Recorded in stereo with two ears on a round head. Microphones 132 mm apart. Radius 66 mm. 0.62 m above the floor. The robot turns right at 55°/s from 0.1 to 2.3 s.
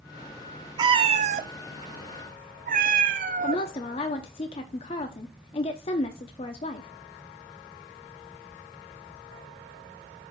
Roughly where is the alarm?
No alarm in this recording.